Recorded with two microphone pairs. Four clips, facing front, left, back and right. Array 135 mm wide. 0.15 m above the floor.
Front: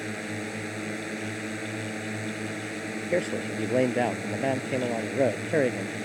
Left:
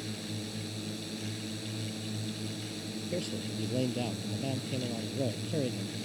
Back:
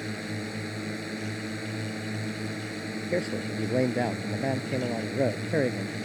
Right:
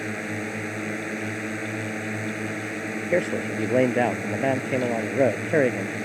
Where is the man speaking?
75° right.